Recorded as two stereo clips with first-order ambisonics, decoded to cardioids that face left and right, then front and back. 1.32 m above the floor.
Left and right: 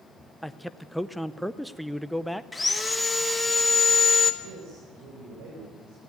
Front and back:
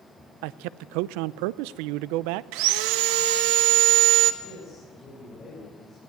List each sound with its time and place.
0.4 s a man speaking: straight behind, 0.6 m
2.5 s sawing: 170° left, 1.0 m
4.4 s a man speaking: 75° right, 5.5 m